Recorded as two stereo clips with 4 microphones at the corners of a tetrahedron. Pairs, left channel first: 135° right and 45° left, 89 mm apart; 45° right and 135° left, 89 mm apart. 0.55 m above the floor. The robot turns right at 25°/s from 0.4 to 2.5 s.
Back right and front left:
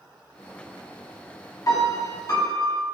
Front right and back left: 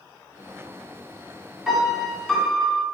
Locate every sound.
1.7 s a piano: 145° right, 1.5 m; by 2.8 s 125° right, 1.5 m